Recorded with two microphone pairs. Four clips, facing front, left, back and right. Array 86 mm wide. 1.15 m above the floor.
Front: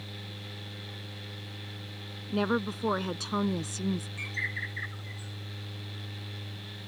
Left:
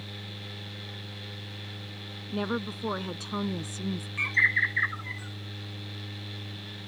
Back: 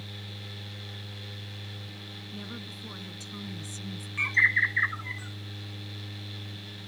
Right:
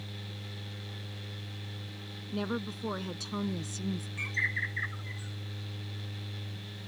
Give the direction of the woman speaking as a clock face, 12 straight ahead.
11 o'clock.